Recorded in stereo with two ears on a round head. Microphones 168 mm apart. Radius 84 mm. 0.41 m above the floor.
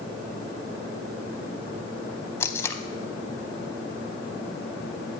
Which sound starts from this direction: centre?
Tape being pulled, at 2.4 s.